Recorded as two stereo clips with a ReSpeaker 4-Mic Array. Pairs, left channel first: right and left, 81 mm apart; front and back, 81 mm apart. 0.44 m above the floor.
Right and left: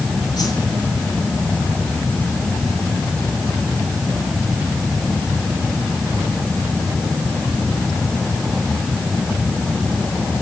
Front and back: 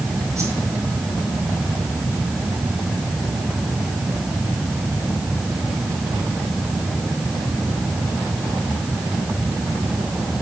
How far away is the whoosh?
About 7 m.